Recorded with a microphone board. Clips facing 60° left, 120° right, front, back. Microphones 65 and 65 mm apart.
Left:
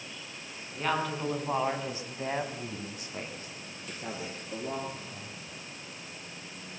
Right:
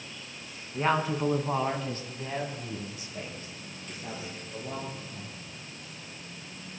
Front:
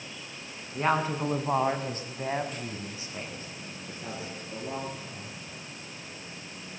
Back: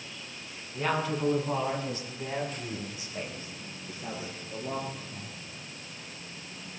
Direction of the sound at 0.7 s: 60° right.